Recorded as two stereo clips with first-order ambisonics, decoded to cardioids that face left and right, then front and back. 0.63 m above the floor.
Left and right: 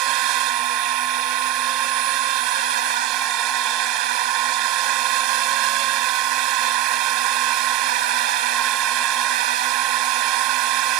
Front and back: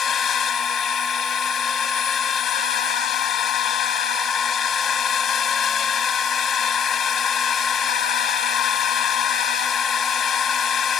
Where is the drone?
60° right.